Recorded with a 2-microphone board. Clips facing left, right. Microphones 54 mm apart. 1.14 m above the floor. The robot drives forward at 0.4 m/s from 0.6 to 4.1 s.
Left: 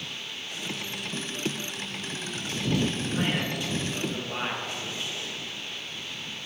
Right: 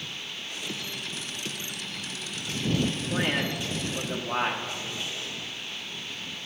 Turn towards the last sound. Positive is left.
turn(degrees=-10)  # may be behind; listen again after turning